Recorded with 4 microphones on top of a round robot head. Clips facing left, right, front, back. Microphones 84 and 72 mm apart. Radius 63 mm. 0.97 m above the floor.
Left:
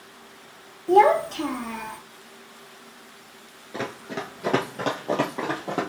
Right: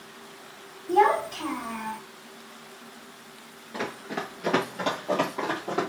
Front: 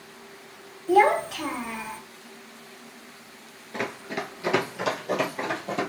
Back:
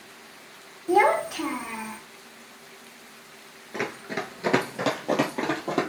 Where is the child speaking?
115° left, 1.2 m; by 2.0 s 105° left, 2 m.